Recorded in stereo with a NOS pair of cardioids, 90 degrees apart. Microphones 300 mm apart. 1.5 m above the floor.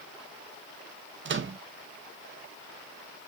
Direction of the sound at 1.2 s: 40° right.